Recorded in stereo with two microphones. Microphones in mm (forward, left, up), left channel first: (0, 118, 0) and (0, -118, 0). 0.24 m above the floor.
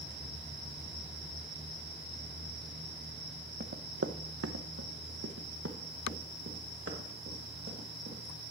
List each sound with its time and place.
3.6 s running footsteps: 45° right (ahead or behind), 0.9 m